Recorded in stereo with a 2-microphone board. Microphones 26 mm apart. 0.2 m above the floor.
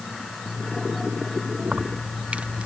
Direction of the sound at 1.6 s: 55° right (ahead or behind).